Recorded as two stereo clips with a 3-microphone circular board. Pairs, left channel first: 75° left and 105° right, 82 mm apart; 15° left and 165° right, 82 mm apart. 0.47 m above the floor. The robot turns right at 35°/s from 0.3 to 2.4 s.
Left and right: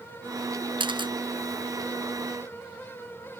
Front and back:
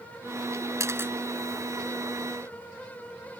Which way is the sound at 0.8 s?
115° right.